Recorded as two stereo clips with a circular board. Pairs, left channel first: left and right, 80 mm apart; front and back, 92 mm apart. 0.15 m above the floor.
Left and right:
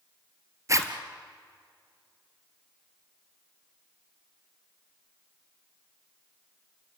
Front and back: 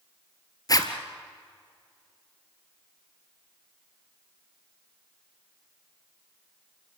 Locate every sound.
0.7 s a zipper: 45° right, 1.6 m